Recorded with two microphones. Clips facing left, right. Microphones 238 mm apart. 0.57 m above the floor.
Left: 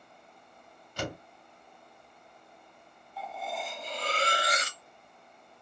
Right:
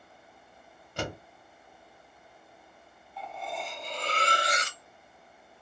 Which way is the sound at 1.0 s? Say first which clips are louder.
Right 1 dB; 55° right (ahead or behind).